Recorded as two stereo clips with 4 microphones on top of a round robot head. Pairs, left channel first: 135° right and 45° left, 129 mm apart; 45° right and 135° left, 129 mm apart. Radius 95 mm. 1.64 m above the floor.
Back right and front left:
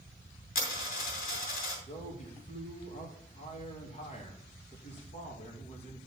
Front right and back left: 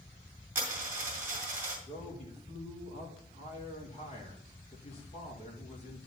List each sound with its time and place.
0.6 s a dropped coin: 150° right, 2.5 m
1.9 s a man speaking: 90° right, 2.5 m